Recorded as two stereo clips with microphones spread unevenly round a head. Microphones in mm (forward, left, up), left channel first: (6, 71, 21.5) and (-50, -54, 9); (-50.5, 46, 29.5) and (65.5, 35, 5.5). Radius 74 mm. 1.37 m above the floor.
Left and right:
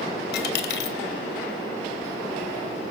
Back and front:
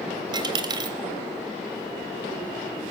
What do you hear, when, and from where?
0.3 s a dropped coin: 50° left, 2.5 m